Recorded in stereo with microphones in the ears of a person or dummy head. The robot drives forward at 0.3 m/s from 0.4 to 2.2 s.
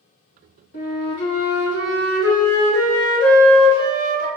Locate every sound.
0.7 s a flute: 20° left (ahead or behind), 0.6 m; by 4.3 s 15° left (ahead or behind), 0.8 m